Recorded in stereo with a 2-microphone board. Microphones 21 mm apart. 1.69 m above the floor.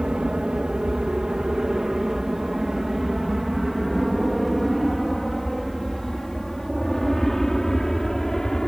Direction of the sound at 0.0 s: 45° right (ahead or behind).